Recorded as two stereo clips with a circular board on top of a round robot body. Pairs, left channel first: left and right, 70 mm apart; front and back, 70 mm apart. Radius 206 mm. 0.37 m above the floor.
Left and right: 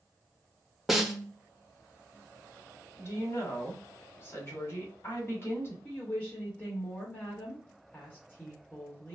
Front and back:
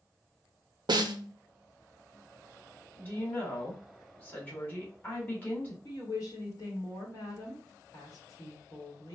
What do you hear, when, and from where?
0.9 s a snare drum: 175° right, 0.5 m
3.0 s a woman speaking: 55° left, 1.7 m
5.8 s a woman speaking: 20° left, 1.4 m